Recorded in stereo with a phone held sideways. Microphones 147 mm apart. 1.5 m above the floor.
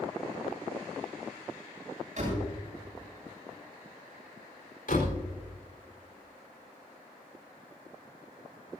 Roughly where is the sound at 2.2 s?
Right.